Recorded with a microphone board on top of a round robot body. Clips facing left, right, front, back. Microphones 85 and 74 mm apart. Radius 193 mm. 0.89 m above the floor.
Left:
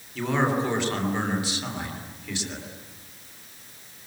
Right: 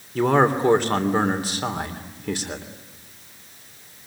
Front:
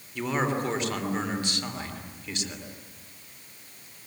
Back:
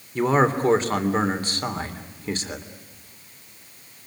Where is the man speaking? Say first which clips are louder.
Right 6 dB, back 8 dB; 130° right, 3 m.